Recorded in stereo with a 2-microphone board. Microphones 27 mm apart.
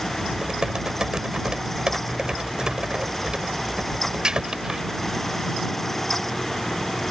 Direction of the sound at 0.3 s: 30° right (ahead or behind).